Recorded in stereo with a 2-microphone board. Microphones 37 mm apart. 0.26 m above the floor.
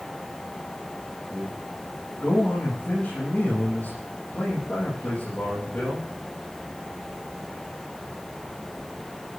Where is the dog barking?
I don't hear a dog barking.